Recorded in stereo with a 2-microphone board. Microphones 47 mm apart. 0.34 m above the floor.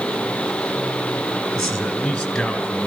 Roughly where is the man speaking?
Centre.